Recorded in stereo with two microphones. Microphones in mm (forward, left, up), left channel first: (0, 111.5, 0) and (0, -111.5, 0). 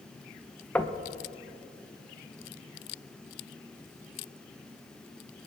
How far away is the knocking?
About 0.7 m.